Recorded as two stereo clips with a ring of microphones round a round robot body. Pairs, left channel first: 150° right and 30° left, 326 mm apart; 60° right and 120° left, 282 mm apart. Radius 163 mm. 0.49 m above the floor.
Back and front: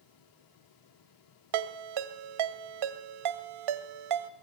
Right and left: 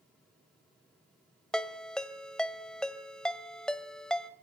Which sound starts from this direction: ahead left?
A ringtone, at 1.5 s.